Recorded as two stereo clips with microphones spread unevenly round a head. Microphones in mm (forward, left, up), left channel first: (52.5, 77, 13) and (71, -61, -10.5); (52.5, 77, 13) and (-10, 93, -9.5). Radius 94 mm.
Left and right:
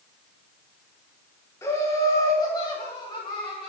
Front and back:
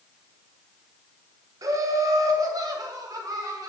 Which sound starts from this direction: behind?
Laughter, at 1.6 s.